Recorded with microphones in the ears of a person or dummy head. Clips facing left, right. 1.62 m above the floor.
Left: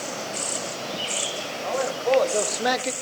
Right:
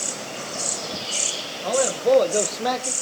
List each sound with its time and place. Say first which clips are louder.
1.6 s a man speaking: right 4 dB; 60° right (ahead or behind), 1.5 m; by 2.9 s 35° left (ahead or behind), 0.8 m